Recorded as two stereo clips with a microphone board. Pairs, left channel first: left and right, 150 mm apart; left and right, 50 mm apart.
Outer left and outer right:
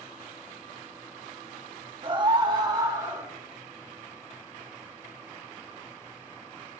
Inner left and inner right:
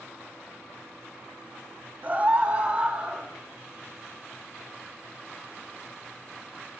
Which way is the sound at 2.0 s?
35° right (ahead or behind).